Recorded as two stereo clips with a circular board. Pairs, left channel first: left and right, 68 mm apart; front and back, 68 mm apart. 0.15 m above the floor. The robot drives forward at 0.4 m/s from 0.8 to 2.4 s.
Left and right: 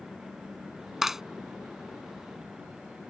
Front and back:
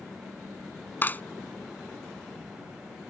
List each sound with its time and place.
1.0 s a clap: 10° right